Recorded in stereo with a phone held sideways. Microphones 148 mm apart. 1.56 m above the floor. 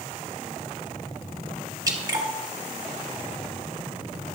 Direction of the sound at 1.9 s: 25° right (ahead or behind).